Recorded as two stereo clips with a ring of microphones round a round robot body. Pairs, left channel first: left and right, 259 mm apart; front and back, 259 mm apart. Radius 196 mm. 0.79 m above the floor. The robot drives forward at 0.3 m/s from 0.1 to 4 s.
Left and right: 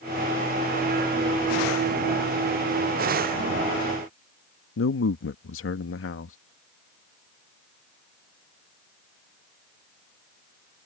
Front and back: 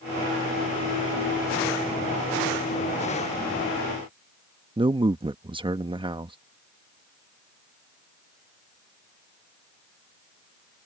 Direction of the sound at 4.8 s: 110° left.